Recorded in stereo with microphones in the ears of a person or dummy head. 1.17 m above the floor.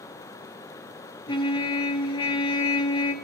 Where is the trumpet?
25° left (ahead or behind), 0.6 m.